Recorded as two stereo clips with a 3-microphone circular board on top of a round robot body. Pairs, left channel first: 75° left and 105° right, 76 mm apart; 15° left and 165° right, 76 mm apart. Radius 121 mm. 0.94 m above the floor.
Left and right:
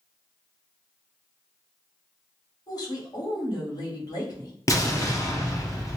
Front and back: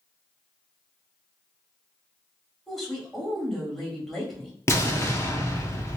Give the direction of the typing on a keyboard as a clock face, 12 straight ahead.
No typing on a keyboard in this recording.